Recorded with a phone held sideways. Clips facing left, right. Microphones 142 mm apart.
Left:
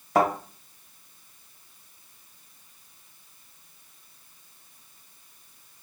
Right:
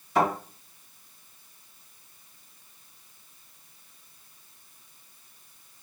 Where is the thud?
75° left (ahead or behind), 2.0 m.